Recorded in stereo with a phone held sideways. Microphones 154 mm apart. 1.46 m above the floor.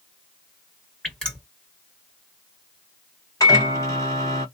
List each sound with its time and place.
1.0 s dripping: 5° left (ahead or behind), 2.0 m
3.4 s a microwave: 20° left (ahead or behind), 1.3 m